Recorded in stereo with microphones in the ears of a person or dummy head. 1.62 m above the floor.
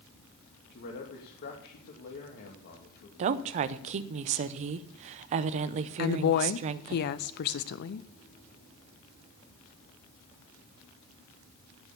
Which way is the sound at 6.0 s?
60° left (ahead or behind).